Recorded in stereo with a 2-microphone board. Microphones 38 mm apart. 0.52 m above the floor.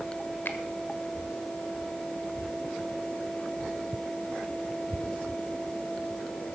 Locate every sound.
0.5 s a finger snap: 60° left (ahead or behind), 1.4 m